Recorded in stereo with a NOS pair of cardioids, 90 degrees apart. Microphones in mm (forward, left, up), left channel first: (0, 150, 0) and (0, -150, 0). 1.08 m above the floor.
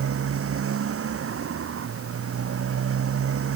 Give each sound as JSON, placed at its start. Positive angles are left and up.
{"t": 0.0, "sound": "a motorcycle", "azimuth_deg": -50}